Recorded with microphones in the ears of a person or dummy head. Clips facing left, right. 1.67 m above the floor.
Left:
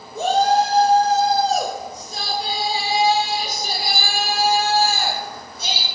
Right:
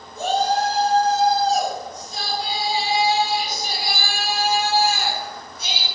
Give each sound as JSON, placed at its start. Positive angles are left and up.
{"t": 0.1, "sound": "a shout", "side_deg": 60, "distance_m": 4.0}